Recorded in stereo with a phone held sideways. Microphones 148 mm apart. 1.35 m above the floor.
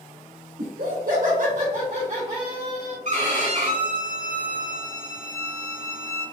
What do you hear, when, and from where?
0.6 s laughter: 80° right, 1.1 m; by 3.0 s 20° right (ahead or behind), 1.5 m
3.0 s a violin: 55° right (ahead or behind), 1.4 m